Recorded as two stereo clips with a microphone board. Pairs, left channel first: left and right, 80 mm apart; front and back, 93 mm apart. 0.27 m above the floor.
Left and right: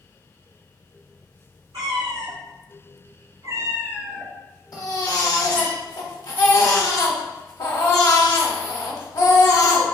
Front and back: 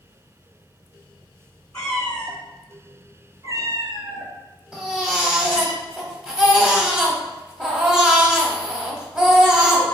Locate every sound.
1.7 s a cat meowing: 75° right, 1.1 m; by 5.7 s 155° left, 1.2 m
4.7 s a baby crying: 100° left, 0.7 m